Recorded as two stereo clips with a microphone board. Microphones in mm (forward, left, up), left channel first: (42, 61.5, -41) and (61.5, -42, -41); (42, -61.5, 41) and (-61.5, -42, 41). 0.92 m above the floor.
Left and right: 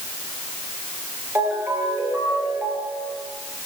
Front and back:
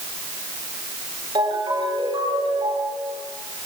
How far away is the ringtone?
About 8 m.